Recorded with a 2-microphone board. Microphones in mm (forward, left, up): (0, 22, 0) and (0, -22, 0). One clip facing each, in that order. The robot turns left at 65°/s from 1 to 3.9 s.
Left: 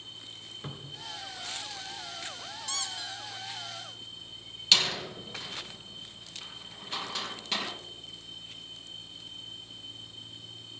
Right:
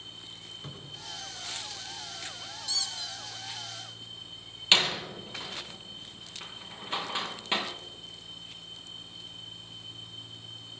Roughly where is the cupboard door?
Left.